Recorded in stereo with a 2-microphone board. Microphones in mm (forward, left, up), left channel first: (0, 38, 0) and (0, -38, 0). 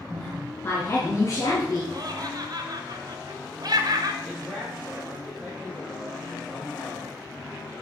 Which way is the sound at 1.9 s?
55° right (ahead or behind).